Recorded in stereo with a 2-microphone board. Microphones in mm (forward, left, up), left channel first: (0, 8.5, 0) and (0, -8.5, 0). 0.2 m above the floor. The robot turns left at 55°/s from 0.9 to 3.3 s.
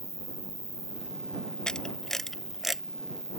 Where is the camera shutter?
50° left (ahead or behind); by 2.8 s 15° right (ahead or behind).